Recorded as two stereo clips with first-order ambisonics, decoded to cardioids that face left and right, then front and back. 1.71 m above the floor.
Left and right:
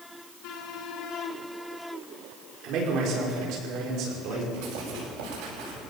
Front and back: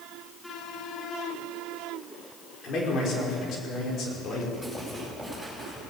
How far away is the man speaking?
About 5.5 m.